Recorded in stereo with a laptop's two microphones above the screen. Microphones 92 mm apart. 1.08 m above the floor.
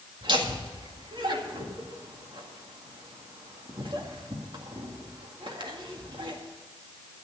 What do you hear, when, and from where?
0.2 s laughter: 60° right (ahead or behind), 1.9 m